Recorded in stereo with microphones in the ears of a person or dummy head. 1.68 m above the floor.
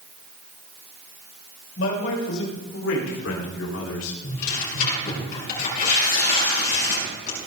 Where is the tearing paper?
50° left (ahead or behind), 7 m.